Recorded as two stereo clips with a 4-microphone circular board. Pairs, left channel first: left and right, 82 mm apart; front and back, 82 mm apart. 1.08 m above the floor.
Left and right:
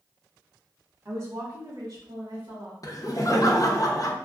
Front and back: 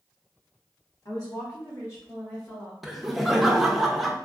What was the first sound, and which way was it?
A woman speaking, 30° right.